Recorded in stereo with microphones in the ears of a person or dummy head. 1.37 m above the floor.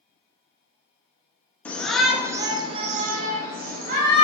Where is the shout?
10° left (ahead or behind), 0.7 m; by 4.2 s 50° right (ahead or behind), 1.0 m.